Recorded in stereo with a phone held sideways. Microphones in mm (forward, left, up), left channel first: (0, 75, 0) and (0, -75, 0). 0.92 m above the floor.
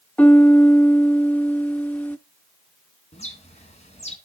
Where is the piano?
10° left (ahead or behind), 0.5 m.